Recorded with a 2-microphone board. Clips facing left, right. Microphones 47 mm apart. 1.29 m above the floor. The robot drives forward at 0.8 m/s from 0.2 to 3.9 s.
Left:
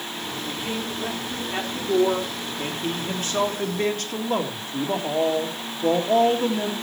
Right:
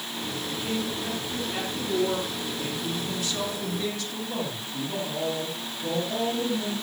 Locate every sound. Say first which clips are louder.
0.5 s a man speaking: even; 25° left (ahead or behind), 4.5 m; by 6.7 s 55° left (ahead or behind), 2.5 m